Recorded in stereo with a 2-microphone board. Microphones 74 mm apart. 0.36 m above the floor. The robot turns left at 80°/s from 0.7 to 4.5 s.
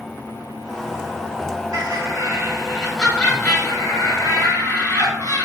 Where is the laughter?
80° right, 1.7 m; by 5.5 s 60° left, 1.7 m.